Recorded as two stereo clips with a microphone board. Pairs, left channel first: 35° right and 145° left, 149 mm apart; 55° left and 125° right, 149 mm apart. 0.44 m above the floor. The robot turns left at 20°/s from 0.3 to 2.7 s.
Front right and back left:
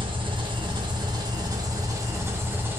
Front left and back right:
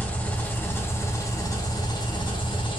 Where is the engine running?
125° left, 0.7 m; by 2.8 s 80° left, 0.7 m.